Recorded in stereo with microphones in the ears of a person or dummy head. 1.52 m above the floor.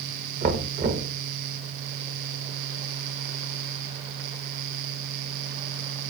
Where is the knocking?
35° right (ahead or behind), 1.1 m.